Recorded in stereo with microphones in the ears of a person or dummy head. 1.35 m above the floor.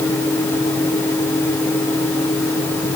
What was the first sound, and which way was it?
Only background noise.